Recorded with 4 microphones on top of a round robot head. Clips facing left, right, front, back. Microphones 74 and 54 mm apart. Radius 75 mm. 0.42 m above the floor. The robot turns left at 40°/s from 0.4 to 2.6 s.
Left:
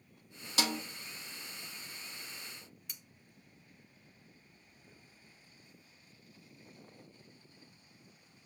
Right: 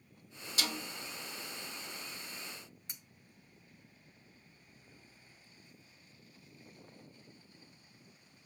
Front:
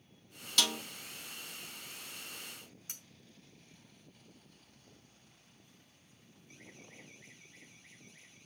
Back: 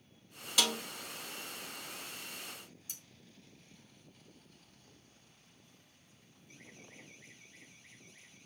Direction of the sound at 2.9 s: 25° right.